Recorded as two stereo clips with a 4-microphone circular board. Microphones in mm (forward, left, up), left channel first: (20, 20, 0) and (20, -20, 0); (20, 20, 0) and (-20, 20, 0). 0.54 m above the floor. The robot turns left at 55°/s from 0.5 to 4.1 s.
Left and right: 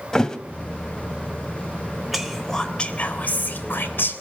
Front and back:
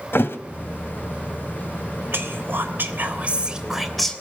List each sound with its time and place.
0.1 s a thud: 15° left, 1.5 m
2.1 s whispering: 175° right, 3 m; by 4.2 s 80° left, 3 m